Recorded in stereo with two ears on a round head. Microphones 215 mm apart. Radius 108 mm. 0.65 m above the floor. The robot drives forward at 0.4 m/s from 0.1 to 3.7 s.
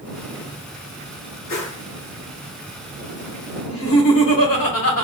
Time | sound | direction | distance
1.5 | a whoosh | 55° left (ahead or behind) | 1.8 m
3.7 | laughter | 65° left (ahead or behind) | 2.5 m